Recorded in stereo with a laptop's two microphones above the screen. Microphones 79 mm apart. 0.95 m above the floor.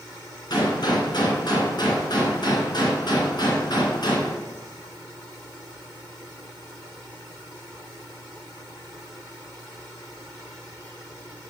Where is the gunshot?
60° left (ahead or behind), 2 m.